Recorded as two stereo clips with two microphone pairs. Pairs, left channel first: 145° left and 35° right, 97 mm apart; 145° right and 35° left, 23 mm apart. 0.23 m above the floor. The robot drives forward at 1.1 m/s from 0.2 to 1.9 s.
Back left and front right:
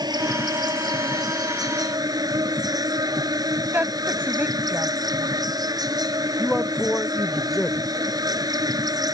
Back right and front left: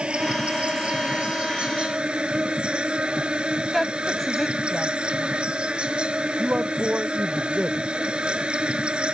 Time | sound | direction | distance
0.0 | an insect | 5° left | ?
3.7 | a woman speaking | 80° right | ?
6.4 | a man speaking | 55° left | ?